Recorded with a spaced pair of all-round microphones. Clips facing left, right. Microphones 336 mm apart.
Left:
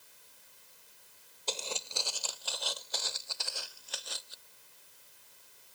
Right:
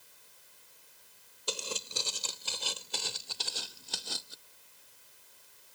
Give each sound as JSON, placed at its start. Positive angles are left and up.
{"t": 1.5, "sound": "footsteps", "side_deg": -15}